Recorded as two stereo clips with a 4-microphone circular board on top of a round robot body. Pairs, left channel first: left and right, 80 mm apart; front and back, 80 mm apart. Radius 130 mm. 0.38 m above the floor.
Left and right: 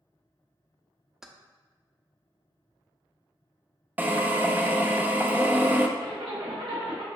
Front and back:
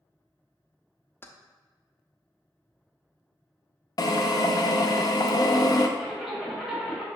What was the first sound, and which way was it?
Keys jangling, 10° right.